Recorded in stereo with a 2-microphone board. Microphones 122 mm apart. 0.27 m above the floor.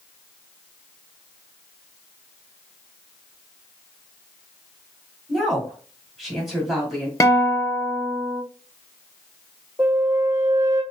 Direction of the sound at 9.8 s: 25° right (ahead or behind).